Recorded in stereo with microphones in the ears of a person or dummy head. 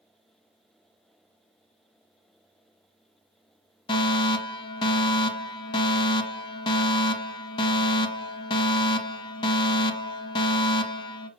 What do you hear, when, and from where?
3.9 s a fire alarm: 25° left (ahead or behind), 1.4 m